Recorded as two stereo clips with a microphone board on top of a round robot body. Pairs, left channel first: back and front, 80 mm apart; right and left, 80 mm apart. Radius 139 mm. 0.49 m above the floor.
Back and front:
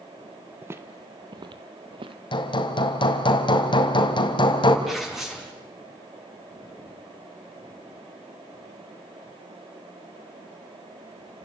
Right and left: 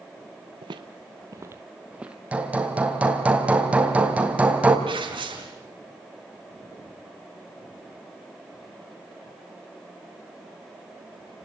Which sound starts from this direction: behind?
Hammering, at 2.3 s.